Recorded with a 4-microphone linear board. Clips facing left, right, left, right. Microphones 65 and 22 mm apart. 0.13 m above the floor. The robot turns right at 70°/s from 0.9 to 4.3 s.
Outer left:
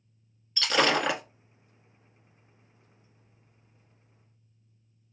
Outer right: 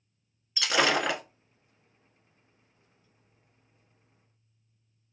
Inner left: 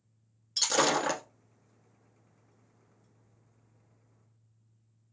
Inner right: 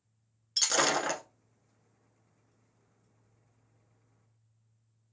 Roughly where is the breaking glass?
Centre.